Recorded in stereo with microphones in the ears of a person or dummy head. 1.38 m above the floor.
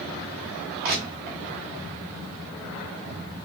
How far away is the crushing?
About 1.0 m.